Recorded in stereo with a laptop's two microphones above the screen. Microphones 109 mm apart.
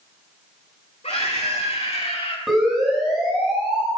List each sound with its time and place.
1.0 s a scream: 75° left (ahead or behind), 3 m; by 2.4 s 60° left (ahead or behind), 2.0 m
2.5 s a siren: centre (ahead or behind), 7.5 m; by 3.9 s 5° right (ahead or behind), 8 m